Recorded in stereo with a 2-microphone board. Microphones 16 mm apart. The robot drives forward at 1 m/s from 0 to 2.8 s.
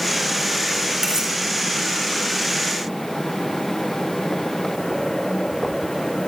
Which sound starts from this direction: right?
Cutlery clinking, at 1.0 s.